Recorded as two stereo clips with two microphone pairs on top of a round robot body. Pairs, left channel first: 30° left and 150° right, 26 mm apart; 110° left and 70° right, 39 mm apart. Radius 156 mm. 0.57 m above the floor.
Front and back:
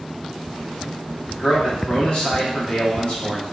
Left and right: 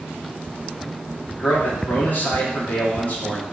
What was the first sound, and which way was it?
A man speaking, 65° left.